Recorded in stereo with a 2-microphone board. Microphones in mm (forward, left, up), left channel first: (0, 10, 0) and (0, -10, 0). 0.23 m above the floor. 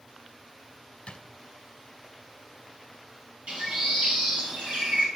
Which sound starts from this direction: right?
A bird, at 3.5 s.